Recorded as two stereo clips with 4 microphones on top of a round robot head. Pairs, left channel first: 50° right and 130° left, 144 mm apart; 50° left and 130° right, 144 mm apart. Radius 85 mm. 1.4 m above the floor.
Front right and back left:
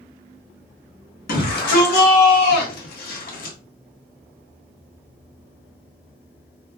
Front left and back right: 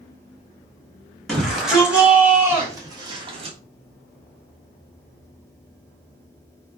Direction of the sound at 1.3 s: 40° right.